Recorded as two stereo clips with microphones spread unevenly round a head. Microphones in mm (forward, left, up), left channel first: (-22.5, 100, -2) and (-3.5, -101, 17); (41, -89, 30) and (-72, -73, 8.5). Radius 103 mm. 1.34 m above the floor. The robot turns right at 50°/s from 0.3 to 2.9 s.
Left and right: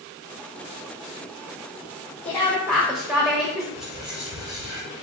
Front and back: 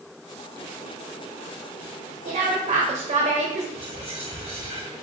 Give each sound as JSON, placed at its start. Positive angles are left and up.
{"t": 2.2, "sound": "a woman speaking", "azimuth_deg": 170, "distance_m": 1.0}
{"t": 3.8, "sound": "whispering", "azimuth_deg": -160, "distance_m": 1.1}